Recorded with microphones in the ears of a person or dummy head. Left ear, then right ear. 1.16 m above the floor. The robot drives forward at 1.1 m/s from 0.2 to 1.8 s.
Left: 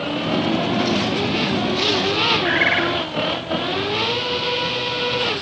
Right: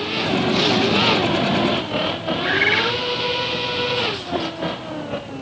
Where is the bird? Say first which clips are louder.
Even; 20° left (ahead or behind), 3 m.